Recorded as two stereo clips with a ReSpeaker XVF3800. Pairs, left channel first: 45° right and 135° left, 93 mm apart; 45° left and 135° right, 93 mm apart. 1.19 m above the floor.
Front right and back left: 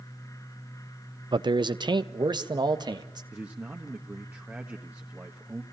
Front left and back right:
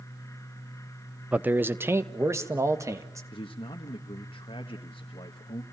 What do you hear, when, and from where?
1.3 s a man speaking: 150° left, 0.7 m; by 3.2 s 170° left, 2 m
3.3 s a man speaking: 60° left, 1.3 m